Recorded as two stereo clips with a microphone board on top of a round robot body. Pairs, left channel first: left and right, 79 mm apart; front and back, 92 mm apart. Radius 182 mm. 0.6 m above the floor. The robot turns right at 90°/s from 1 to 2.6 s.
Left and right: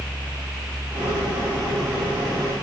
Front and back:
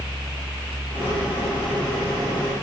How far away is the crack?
No crack in this recording.